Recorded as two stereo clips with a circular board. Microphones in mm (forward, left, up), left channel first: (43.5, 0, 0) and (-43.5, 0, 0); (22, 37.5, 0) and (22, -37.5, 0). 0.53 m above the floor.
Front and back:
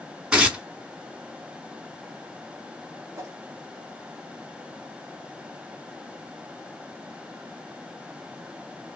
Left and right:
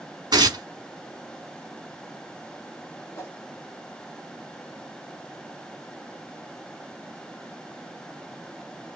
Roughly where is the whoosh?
Behind left.